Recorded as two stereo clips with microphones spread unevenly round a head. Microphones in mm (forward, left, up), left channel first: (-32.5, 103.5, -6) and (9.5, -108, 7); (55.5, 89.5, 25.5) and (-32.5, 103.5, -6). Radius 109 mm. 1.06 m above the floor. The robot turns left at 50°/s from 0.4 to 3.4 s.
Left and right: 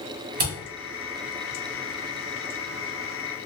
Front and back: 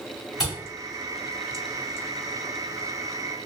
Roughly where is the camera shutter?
Right.